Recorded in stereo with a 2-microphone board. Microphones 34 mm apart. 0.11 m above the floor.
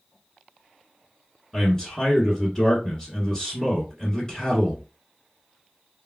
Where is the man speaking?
15° left (ahead or behind), 1.1 m.